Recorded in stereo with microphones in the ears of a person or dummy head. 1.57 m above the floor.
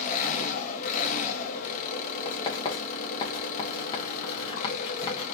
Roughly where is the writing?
Left.